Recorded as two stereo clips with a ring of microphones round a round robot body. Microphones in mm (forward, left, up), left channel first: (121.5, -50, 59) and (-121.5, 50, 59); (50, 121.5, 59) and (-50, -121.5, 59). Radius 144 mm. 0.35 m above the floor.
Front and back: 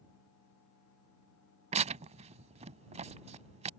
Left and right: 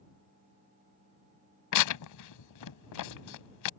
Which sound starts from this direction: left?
Tearing paper, at 1.7 s.